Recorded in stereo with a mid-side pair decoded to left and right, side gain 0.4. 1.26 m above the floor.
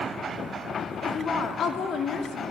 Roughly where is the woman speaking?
Ahead left.